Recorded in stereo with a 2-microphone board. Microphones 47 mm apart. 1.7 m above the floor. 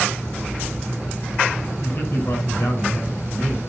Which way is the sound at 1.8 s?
65° left (ahead or behind).